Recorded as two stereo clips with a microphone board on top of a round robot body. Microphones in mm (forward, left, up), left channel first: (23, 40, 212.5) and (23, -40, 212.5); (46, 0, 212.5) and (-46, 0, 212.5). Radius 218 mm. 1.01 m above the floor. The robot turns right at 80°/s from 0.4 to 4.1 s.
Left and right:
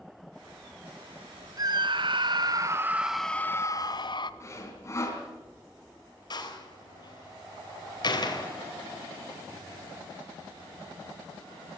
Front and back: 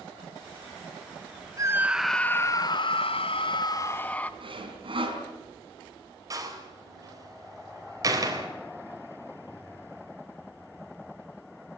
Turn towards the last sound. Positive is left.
turn(degrees=125)